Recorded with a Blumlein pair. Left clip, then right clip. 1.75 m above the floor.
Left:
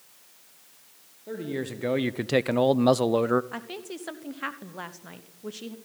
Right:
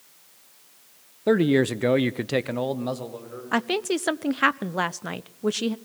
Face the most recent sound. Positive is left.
turn(degrees=-60)